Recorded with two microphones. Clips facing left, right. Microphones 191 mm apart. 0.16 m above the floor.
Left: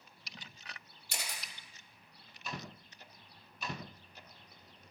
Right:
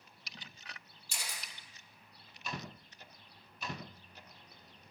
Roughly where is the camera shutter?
Left.